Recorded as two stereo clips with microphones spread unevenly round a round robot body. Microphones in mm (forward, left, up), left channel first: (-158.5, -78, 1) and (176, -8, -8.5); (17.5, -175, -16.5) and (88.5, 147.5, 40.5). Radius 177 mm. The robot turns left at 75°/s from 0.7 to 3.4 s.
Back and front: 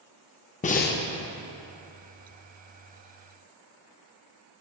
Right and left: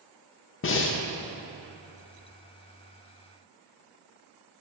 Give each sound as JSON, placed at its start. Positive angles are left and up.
{"t": 0.6, "sound": "breathing", "azimuth_deg": -105, "distance_m": 0.5}